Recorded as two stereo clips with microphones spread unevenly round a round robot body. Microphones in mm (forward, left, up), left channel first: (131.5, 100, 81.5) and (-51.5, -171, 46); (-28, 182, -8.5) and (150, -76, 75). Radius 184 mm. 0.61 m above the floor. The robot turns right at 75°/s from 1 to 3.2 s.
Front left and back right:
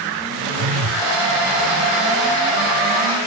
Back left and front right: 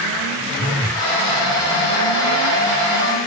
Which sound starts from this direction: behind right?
A phone buzzing, at 0.6 s.